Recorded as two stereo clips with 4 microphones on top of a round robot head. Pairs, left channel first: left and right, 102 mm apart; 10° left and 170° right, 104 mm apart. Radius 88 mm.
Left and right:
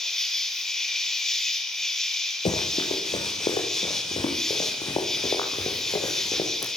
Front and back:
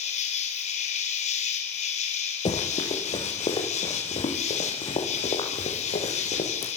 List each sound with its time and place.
0.0 s an insect: 5° left, 6.5 m
2.5 s running footsteps: 50° left, 8 m; by 6.7 s 35° left, 8.5 m